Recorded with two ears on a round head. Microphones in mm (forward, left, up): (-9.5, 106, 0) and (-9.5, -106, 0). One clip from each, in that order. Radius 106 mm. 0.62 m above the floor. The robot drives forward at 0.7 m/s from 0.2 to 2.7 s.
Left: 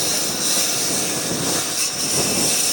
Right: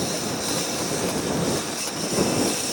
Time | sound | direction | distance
0.0 | a lawn mower | 45° left (ahead or behind) | ?